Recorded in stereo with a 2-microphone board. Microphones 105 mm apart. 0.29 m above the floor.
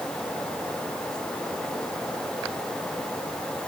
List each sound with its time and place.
Only background noise.